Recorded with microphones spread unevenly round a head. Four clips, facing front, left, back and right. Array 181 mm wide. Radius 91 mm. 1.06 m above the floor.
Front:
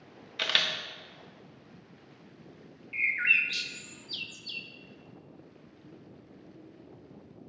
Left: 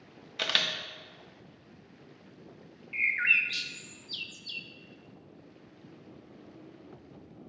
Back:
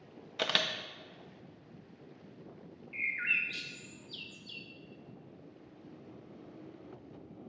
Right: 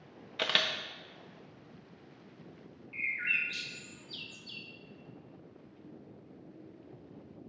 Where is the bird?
75° left, 0.8 m.